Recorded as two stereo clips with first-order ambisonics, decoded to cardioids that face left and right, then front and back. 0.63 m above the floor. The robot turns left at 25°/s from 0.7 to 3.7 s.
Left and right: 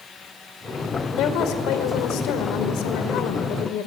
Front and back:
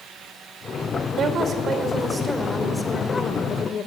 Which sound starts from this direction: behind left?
A woman speaking, at 1.2 s.